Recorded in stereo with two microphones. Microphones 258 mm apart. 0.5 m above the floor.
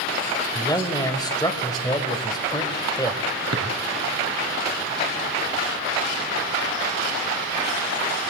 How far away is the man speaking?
About 2.0 m.